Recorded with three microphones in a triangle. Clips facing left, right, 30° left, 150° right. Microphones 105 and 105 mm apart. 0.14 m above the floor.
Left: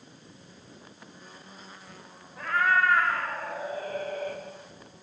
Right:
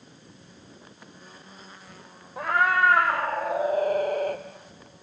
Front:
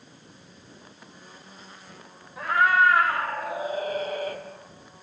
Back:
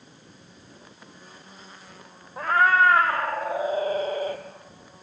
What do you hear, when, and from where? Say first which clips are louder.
2.4 s a cat meowing: right 2 dB, back 1 dB; 100° right, 3.5 m; by 4.4 s 85° right, 2.5 m